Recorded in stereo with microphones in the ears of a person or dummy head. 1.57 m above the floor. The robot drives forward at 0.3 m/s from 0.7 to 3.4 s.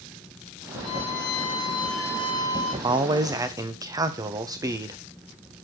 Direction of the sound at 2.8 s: 25° right (ahead or behind).